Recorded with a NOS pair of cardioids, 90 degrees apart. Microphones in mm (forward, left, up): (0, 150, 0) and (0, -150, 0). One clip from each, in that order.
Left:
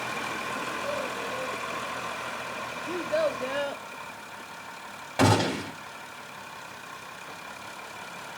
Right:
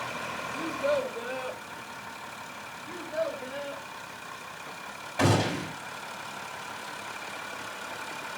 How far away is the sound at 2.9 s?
About 0.9 m.